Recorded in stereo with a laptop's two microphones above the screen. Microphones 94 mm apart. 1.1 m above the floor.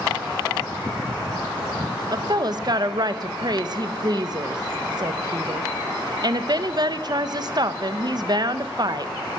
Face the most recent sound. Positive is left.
turn(degrees=-50)  # may be behind; listen again after turning